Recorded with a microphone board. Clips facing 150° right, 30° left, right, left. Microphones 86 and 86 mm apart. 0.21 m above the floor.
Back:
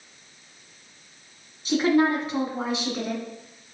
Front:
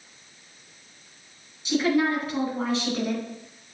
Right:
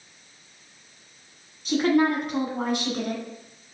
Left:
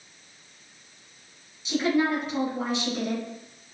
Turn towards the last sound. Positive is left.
turn(degrees=-65)